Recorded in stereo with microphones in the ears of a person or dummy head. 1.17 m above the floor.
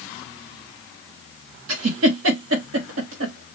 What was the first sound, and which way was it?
A giggle, 90° right.